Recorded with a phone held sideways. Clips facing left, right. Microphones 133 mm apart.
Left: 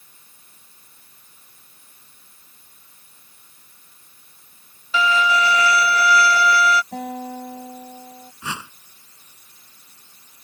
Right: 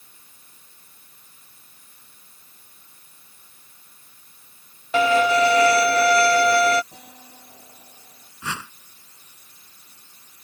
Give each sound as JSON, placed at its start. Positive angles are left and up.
{"t": 4.9, "sound": "a violin", "side_deg": -60}
{"t": 6.9, "sound": "a guitar", "side_deg": 70}
{"t": 8.4, "sound": "a whoosh", "side_deg": 15}